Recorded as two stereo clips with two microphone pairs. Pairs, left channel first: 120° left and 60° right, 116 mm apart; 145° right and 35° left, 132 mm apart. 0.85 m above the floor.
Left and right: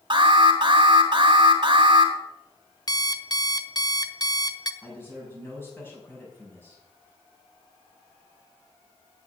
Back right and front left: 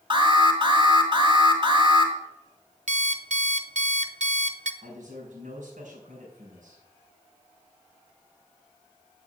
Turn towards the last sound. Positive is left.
turn(degrees=45)